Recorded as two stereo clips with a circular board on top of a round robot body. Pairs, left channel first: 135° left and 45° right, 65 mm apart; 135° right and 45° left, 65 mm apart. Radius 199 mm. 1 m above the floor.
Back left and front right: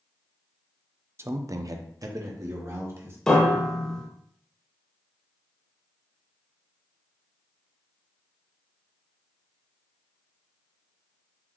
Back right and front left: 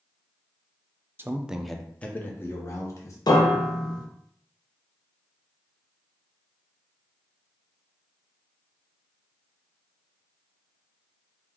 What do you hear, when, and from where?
1.2 s a man speaking: 5° right, 0.7 m; by 3.2 s 90° right, 1.5 m
3.3 s a piano: 145° right, 1.0 m